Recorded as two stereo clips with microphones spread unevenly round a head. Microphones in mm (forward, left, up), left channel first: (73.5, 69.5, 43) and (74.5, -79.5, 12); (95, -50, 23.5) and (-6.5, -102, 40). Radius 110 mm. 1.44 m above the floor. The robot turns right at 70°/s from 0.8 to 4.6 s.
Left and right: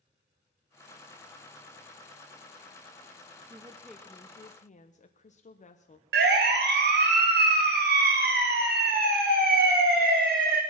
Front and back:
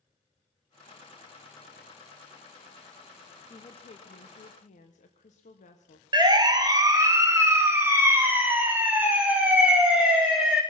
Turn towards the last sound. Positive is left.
turn(degrees=-70)